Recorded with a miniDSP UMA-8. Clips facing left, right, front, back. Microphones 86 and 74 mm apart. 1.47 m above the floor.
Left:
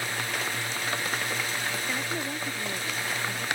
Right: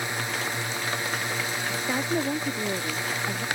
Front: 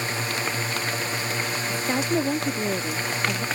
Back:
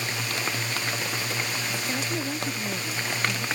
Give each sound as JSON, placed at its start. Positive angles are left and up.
{"t": 0.0, "sound": "a drone", "azimuth_deg": -30}
{"t": 1.7, "sound": "a woman speaking", "azimuth_deg": -35}